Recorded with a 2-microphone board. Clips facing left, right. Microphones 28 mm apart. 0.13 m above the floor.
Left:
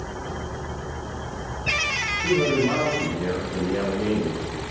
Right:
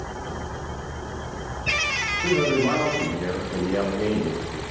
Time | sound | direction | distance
2.2 | a man speaking | 60° right (ahead or behind) | 7.5 m